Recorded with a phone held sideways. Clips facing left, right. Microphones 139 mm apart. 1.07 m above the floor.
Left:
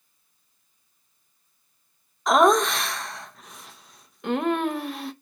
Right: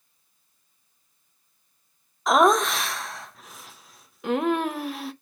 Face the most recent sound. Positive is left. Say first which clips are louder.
# left 1 dB
turn(degrees=0)  # may be behind; listen again after turning